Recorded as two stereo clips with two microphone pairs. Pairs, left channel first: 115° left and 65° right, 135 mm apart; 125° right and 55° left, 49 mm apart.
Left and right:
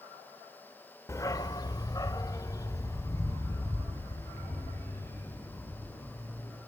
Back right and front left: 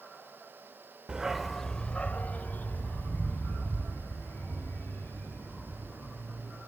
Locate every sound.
1.1 s a dog barking: 95° left, 0.7 m; by 6.6 s 170° right, 5.5 m